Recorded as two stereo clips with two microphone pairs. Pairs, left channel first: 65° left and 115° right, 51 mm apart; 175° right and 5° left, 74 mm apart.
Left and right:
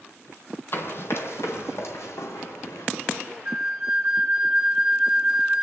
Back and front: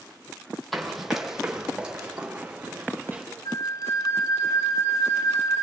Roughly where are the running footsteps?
Left.